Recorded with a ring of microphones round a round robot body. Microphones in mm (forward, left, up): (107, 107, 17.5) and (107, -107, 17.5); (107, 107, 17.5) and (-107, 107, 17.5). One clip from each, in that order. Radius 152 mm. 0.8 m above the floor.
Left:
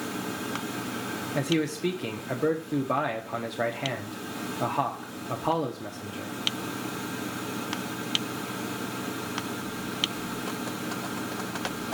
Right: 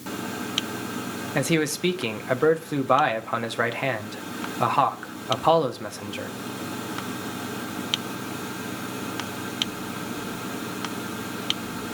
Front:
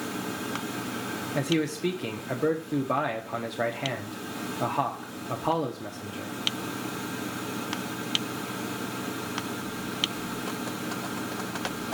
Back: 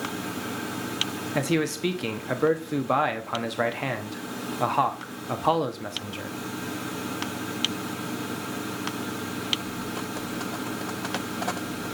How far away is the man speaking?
About 0.8 m.